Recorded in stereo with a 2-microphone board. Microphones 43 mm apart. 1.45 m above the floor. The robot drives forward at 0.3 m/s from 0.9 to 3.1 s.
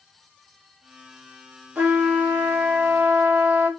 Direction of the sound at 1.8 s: 50° right (ahead or behind).